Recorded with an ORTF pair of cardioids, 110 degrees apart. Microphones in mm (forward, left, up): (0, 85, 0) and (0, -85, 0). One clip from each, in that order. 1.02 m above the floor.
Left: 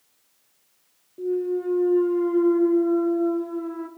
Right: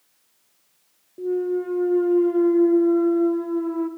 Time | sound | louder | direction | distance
1.2 | a clunk | right 1 dB | 10° right | 0.9 m